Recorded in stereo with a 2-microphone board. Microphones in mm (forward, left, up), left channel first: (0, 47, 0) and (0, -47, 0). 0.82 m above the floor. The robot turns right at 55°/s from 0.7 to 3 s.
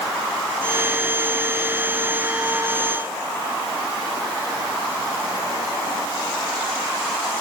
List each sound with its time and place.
Only background noise.